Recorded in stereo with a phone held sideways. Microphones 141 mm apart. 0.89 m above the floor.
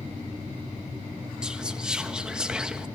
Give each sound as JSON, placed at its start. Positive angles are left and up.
{"t": 1.4, "sound": "whispering", "side_deg": -5, "distance_m": 1.0}